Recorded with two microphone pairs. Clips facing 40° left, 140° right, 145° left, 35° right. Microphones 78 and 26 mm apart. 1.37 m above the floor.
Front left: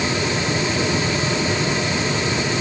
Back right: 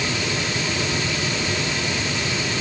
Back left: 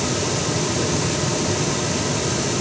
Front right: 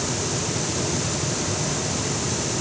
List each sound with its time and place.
Only background noise.